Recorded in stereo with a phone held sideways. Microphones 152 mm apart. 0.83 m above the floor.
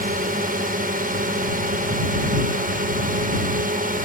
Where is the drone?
65° right (ahead or behind).